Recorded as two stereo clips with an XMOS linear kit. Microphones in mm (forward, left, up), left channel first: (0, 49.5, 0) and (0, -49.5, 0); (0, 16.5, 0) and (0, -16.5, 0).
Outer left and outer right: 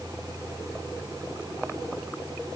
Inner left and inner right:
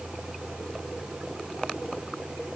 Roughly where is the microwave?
No microwave in this recording.